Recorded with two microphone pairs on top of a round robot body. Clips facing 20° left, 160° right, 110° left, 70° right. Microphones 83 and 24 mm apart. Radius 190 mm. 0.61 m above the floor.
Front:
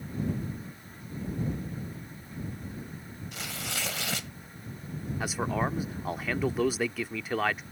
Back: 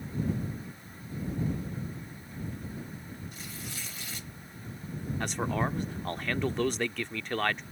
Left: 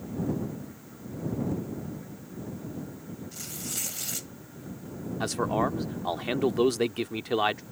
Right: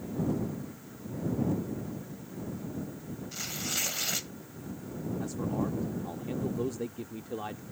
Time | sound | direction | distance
3.3 | tearing paper | 5° left | ?
5.2 | a man speaking | 105° left | ?